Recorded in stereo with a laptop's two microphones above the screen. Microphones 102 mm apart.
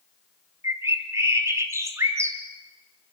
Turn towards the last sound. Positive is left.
turn(degrees=-30)  # may be behind; listen again after turning